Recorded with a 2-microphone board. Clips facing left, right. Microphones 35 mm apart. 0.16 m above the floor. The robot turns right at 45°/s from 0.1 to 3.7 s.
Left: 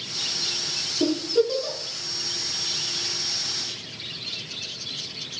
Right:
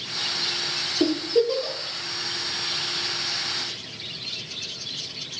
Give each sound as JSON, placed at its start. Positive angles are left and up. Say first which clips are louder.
{"t": 1.0, "sound": "a giggle", "louder": "even", "side_deg": -65, "distance_m": 2.0}